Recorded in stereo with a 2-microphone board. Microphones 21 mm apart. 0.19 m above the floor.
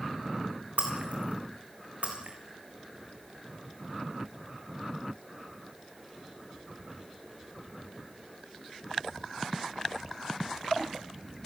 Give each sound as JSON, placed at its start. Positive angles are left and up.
{"t": 0.8, "sound": "breaking glass", "side_deg": -80, "distance_m": 4.5}